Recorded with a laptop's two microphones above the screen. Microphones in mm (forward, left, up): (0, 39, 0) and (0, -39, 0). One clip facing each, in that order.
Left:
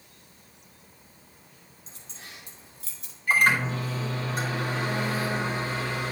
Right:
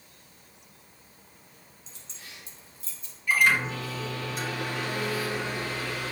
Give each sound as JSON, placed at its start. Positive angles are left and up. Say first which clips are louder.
{"t": 1.9, "sound": "keys jangling", "louder": "left 3 dB", "side_deg": 40, "distance_m": 2.0}
{"t": 3.3, "sound": "a microwave", "louder": "left 1 dB", "side_deg": 45, "distance_m": 3.5}